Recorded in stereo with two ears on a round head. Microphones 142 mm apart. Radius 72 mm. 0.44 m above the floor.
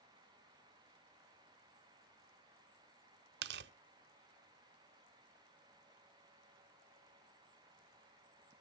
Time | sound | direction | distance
3.4 | tearing paper | 75° right (ahead or behind) | 0.6 m